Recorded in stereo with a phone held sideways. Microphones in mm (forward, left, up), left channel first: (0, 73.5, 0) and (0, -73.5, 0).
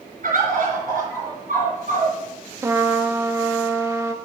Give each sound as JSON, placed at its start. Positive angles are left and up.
{"t": 0.2, "sound": "a bird", "side_deg": -70, "distance_m": 3.5}
{"t": 2.6, "sound": "a trumpet", "side_deg": -20, "distance_m": 0.6}